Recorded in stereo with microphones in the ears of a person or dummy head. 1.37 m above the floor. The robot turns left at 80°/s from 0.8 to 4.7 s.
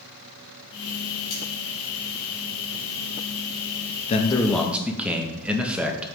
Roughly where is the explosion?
I don't hear an explosion.